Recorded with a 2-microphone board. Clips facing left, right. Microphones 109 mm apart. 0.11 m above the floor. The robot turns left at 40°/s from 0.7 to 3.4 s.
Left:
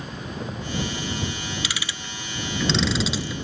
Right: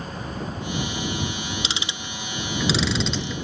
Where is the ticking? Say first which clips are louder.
Right 2 dB; 25° right (ahead or behind); by 3.5 s 10° left (ahead or behind).